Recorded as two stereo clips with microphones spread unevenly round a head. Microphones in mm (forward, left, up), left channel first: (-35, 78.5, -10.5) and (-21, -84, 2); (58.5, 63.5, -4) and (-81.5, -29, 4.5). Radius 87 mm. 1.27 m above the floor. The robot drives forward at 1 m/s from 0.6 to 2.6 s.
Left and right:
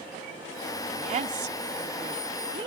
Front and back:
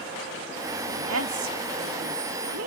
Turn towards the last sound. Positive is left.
turn(degrees=-145)